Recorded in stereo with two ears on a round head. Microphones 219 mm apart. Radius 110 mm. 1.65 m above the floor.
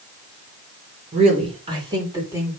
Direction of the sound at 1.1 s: 30° right (ahead or behind).